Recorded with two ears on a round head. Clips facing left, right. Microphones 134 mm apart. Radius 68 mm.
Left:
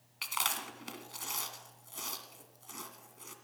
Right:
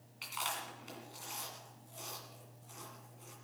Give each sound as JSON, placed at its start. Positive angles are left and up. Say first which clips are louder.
{"t": 0.2, "sound": "chewing", "louder": "left 3 dB", "side_deg": 75, "distance_m": 2.0}